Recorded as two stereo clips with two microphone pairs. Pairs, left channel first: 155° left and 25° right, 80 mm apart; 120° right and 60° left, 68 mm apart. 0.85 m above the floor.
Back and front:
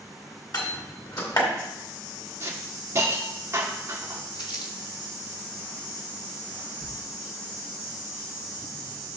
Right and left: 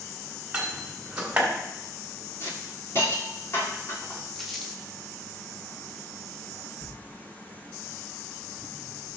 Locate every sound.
0.5 s a door slam: 135° left, 2.0 m
2.4 s a hiss: 75° right, 2 m
4.3 s crumpling: 155° left, 1.4 m
6.8 s tearing paper: 135° right, 3 m